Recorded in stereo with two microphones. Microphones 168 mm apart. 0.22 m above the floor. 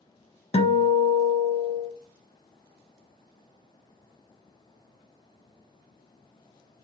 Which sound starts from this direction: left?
A guitar, at 0.5 s.